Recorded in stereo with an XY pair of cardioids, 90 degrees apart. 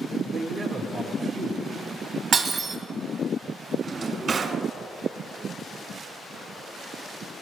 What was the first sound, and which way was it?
A man speaking, 60° right.